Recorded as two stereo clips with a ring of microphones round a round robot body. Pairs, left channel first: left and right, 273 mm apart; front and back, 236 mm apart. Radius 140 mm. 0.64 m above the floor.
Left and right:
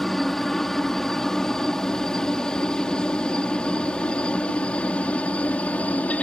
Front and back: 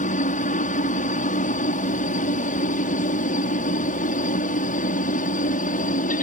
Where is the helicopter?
Straight ahead; by 6.2 s 10° left.